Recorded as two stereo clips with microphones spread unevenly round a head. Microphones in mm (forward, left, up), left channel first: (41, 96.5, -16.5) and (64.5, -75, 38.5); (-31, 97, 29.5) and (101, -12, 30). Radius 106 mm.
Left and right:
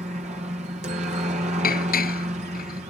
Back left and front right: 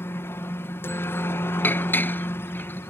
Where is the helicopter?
145° right.